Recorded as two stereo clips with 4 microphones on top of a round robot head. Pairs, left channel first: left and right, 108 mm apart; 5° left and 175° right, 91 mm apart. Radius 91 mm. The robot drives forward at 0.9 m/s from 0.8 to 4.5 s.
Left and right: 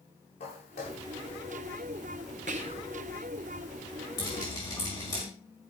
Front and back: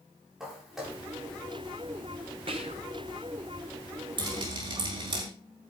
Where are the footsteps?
95° left, 7.5 m; by 1.0 s 100° left, 7.5 m.